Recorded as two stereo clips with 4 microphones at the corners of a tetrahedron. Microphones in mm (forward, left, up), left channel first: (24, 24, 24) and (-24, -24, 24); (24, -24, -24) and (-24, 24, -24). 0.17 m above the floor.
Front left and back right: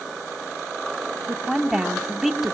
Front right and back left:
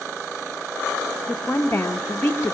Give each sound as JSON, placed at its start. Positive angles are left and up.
{"t": 1.3, "sound": "a woman speaking", "azimuth_deg": -60, "distance_m": 1.1}